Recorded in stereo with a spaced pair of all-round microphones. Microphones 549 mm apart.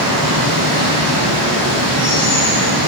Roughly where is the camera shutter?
I don't hear a camera shutter.